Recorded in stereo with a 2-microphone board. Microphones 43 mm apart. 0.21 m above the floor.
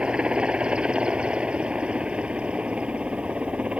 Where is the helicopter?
25° right (ahead or behind); by 3.8 s 30° right (ahead or behind).